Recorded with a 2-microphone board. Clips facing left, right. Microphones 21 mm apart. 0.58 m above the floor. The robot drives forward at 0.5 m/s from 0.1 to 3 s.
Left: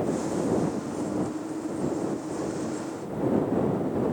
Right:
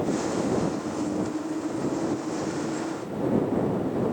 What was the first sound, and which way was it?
Only background noise.